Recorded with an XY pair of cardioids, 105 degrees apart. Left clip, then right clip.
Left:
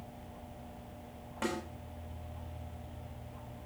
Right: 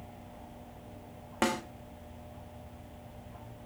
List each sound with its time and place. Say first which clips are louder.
1.4 s a snare drum: right 6 dB; 70° right, 1.6 m